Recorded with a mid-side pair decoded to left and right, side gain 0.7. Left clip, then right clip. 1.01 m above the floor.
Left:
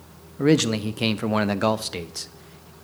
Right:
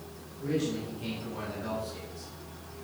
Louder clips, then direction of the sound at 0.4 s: Left 12 dB; 65° left.